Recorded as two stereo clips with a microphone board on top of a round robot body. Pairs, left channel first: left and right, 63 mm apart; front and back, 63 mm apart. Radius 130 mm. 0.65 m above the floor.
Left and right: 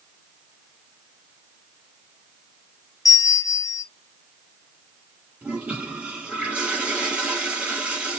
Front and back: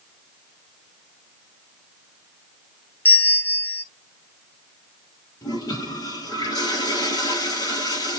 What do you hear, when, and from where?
3.0 s a bell: 65° left, 0.9 m
5.4 s a toilet flushing: 15° right, 4 m